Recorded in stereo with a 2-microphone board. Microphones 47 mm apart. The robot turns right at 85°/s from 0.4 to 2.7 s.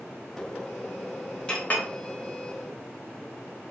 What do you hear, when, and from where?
1.5 s a clink: 20° left (ahead or behind), 0.6 m; by 1.9 s 40° left (ahead or behind), 0.6 m